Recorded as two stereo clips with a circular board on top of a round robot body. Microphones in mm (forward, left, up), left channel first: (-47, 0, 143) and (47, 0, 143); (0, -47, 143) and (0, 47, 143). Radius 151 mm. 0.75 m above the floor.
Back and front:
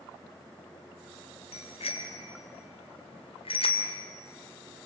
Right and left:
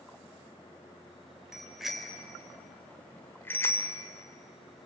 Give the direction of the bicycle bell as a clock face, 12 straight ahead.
6 o'clock.